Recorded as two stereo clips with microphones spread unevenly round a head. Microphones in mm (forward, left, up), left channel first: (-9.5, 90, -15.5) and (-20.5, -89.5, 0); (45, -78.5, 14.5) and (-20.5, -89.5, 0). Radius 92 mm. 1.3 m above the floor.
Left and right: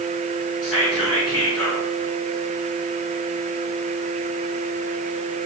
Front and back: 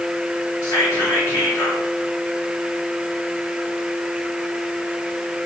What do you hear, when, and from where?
0.6 s whispering: 5° left, 1.3 m